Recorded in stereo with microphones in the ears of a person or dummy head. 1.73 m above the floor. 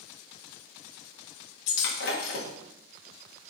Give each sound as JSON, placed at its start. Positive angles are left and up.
{"t": 1.7, "sound": "breaking glass", "side_deg": 60, "distance_m": 1.7}